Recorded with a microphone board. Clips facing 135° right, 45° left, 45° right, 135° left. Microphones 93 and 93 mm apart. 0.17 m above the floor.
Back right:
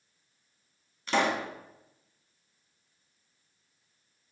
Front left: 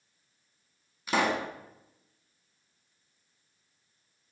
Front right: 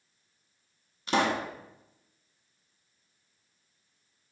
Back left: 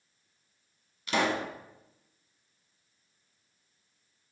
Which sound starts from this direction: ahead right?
A pop, at 1.1 s.